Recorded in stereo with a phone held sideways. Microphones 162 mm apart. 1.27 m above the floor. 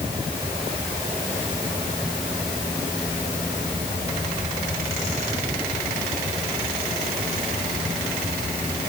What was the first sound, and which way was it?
Only background noise.